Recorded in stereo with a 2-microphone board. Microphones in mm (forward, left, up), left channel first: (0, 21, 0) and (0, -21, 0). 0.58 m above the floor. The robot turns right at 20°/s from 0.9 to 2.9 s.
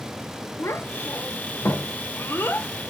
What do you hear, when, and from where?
0.6 s a child speaking: 80° left, 0.8 m; by 2.7 s 55° left (ahead or behind), 0.8 m